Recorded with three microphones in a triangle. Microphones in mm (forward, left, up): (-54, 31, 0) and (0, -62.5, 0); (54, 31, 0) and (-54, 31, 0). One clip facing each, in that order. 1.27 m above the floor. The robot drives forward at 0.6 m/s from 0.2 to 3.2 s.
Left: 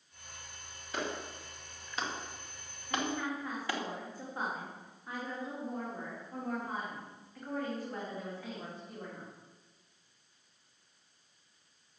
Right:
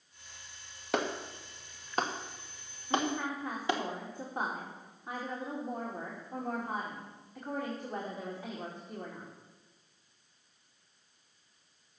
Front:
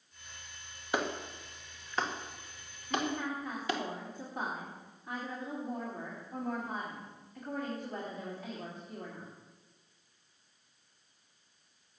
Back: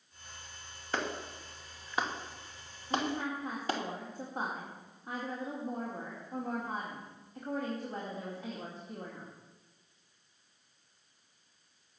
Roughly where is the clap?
Right.